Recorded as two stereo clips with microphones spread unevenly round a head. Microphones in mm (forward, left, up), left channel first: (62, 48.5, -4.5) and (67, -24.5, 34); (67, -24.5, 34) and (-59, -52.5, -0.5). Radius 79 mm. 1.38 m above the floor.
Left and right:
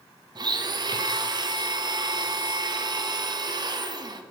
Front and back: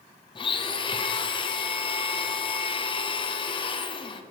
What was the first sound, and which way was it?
A blender, 45° right.